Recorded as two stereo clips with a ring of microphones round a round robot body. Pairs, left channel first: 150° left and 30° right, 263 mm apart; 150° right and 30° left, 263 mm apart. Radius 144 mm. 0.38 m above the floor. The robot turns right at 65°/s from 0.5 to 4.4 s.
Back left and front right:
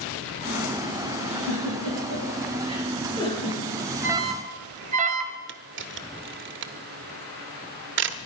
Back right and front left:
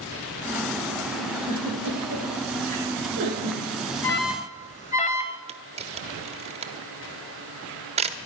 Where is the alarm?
115° right, 2 m; by 5.4 s 90° right, 2 m.